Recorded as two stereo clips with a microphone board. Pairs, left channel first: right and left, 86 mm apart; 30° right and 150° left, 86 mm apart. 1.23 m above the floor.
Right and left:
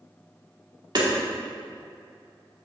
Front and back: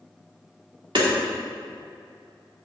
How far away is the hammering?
About 2 m.